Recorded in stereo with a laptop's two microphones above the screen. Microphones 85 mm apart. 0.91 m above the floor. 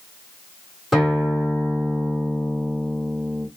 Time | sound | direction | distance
0.9 | a guitar | centre (ahead or behind) | 1.6 m